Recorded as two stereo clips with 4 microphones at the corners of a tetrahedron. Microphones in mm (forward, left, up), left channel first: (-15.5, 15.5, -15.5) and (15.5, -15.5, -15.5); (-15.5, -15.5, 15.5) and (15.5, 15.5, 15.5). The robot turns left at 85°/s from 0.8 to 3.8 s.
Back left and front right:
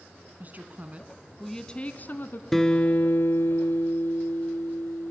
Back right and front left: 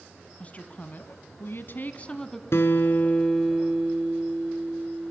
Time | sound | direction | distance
0.4 | a woman speaking | 85° right | 1.9 m
2.5 | a guitar | 140° right | 1.6 m